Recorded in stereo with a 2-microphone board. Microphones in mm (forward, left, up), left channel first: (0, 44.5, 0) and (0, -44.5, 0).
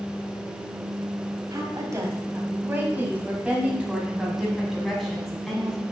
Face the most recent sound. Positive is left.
turn(degrees=5)  # may be behind; listen again after turning